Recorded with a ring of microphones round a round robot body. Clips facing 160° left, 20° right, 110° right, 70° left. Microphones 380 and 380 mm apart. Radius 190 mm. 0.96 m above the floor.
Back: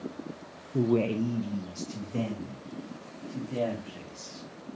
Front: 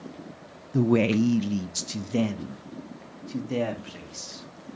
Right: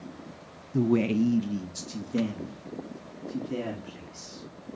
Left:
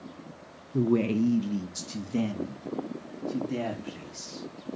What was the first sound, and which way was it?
A man speaking, 50° right.